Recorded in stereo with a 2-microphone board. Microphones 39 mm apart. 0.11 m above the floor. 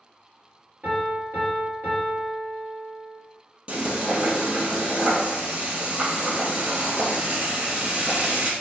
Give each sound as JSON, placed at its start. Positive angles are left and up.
{"t": 0.8, "sound": "a piano", "side_deg": -45, "distance_m": 2.0}
{"t": 3.7, "sound": "frying", "side_deg": -30, "distance_m": 2.0}